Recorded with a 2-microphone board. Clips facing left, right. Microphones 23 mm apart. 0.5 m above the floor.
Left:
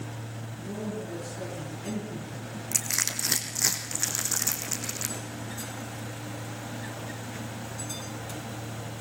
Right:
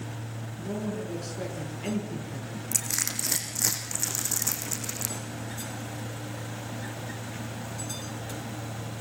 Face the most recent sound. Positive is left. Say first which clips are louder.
# left 1 dB
turn(degrees=25)  # may be behind; listen again after turning